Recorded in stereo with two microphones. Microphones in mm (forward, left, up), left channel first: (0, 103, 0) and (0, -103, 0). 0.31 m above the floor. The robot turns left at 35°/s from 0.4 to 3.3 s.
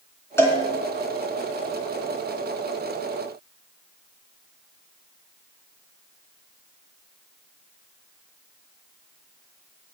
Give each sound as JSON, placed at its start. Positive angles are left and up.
{"t": 0.4, "sound": "a cowbell", "side_deg": 15, "distance_m": 3.0}